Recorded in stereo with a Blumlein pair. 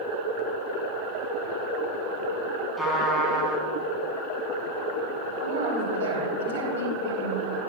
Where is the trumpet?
5° left, 3.5 m.